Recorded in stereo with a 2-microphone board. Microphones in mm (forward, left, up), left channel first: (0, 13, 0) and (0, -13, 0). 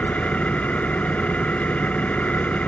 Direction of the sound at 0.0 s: 70° left (ahead or behind).